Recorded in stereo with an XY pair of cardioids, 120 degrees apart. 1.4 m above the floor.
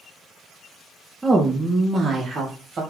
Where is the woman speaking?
10° right, 0.6 m; by 2.8 s 45° right, 1.3 m.